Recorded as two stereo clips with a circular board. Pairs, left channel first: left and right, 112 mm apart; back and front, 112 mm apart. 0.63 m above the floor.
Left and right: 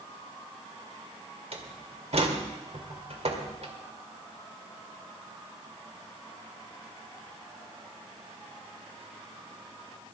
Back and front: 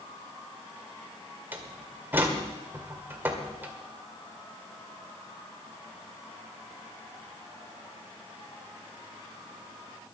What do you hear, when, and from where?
1.5 s a door slam: 70° right, 2.0 m